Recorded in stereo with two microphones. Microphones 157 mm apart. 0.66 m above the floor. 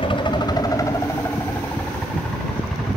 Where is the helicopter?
35° left (ahead or behind); by 3.0 s centre (ahead or behind).